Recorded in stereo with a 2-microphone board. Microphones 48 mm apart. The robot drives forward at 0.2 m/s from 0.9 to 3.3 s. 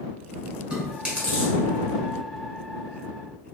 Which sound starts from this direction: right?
Chewing, at 0.7 s.